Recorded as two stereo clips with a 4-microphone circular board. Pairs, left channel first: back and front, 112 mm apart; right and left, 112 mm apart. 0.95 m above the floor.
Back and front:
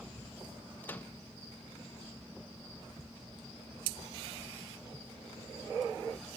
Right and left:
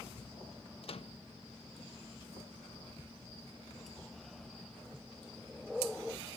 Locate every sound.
0.8 s a microwave: 110° right, 0.7 m